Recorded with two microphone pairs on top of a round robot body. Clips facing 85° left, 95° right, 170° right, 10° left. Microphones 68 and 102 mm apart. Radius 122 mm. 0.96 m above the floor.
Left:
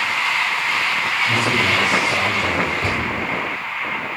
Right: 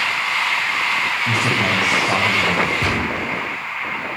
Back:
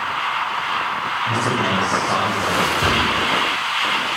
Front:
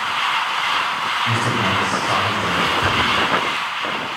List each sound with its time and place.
1.3 s a man speaking: 75° right, 7.5 m
2.8 s a gunshot: 100° right, 7 m